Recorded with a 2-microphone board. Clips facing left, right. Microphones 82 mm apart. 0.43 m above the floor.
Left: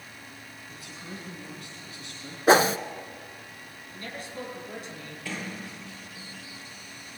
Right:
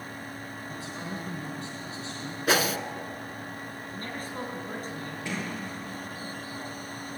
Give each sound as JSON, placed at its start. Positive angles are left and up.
{"t": 0.7, "sound": "a man speaking", "side_deg": -30, "distance_m": 3.5}
{"t": 2.5, "sound": "a whoosh", "side_deg": 35, "distance_m": 0.7}
{"t": 3.9, "sound": "a man speaking", "side_deg": -45, "distance_m": 5.0}
{"t": 5.2, "sound": "a sliding door", "side_deg": -20, "distance_m": 9.5}